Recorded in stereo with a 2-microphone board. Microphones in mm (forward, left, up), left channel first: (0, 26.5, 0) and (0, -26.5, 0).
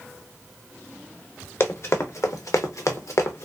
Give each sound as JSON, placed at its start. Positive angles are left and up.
{"t": 1.6, "sound": "running footsteps", "side_deg": 45, "distance_m": 1.1}